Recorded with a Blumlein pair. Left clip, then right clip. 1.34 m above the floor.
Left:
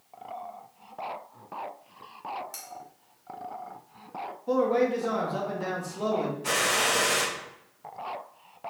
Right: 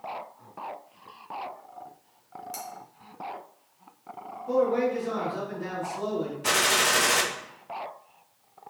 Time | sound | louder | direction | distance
2.5 | cutlery clinking | right 5 dB | straight ahead | 1.7 m
4.5 | a man speaking | even | 25° left | 2.5 m
6.4 | a gunshot | right 3 dB | 25° right | 1.1 m